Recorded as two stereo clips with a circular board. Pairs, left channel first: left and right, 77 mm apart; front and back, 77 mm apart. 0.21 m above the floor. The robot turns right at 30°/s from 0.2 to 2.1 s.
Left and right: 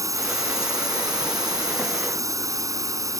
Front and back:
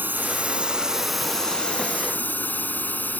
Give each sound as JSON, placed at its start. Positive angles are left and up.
{"t": 0.0, "sound": "a drone", "azimuth_deg": -120}